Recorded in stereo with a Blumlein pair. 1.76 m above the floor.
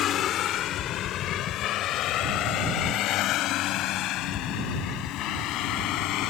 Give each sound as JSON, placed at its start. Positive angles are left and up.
{"t": 0.0, "sound": "a vehicle", "azimuth_deg": 30}